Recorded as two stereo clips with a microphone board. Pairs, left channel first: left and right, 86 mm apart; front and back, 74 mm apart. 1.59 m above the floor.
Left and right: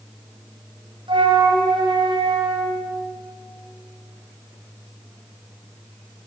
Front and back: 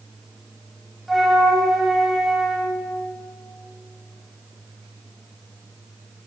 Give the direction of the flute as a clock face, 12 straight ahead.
3 o'clock.